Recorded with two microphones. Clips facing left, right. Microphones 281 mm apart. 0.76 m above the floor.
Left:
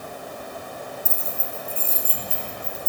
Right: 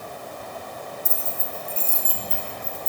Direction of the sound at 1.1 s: 25° right (ahead or behind).